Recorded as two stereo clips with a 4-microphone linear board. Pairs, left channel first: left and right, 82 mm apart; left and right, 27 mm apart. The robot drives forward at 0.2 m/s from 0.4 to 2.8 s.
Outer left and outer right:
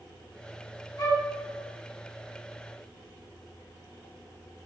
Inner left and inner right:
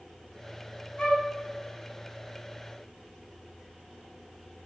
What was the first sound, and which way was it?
A flute, 45° left (ahead or behind).